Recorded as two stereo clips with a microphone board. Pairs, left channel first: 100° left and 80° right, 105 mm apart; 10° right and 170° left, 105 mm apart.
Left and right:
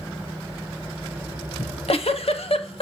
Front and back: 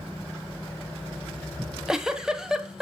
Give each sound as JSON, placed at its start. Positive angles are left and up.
{"t": 1.6, "sound": "a giggle", "azimuth_deg": 85, "distance_m": 0.8}